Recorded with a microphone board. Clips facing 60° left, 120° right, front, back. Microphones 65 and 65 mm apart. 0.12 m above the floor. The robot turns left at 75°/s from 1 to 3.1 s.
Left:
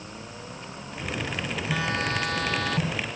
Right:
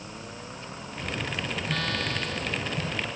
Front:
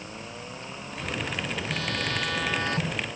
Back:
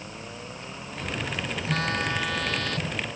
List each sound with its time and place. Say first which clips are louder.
1.7 s a phone buzzing: left 4 dB, back 6 dB; 145° left; by 3.0 s 45° left